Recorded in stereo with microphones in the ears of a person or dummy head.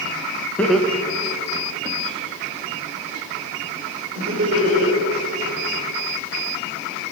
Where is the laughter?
Centre (ahead or behind), 0.8 m; by 5.0 s 40° right (ahead or behind), 3.5 m.